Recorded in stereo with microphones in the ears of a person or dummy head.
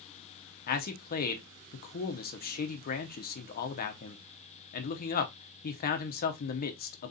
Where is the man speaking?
45° left (ahead or behind), 0.7 m.